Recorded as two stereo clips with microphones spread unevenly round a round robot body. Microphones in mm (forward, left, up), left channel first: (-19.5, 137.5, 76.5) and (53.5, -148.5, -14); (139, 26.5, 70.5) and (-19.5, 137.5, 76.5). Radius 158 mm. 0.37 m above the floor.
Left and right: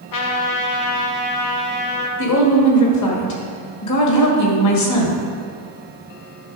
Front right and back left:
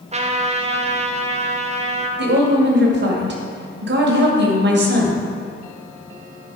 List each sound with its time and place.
0.1 s a trumpet: 100° left, 1.3 m
2.2 s a woman speaking: 140° left, 2 m